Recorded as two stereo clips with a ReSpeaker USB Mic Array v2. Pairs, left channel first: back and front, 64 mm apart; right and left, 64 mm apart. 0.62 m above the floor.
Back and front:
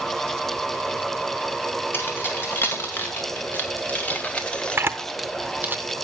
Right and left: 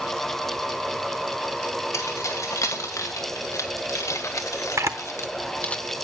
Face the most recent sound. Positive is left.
turn(degrees=55)